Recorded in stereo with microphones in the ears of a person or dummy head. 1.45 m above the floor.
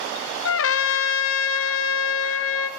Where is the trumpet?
75° left (ahead or behind), 1.0 m.